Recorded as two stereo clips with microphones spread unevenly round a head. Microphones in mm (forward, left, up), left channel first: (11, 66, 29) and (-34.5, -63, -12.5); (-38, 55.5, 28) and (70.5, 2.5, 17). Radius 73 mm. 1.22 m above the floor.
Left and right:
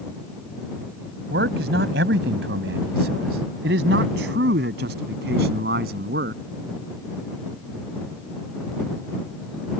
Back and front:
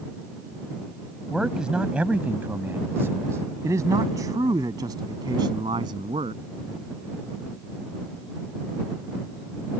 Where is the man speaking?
115° right; by 6.4 s 85° right.